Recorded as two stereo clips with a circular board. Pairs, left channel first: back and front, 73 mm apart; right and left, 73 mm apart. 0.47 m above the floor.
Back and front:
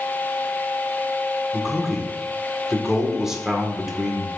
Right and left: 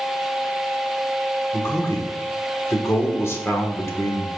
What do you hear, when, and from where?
1.5 s a man speaking: 80° right, 1.1 m